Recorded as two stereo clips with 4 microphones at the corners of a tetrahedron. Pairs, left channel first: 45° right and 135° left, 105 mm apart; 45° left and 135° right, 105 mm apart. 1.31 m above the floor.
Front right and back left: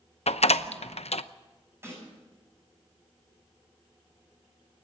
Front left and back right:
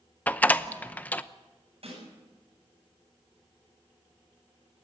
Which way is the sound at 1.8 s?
155° right.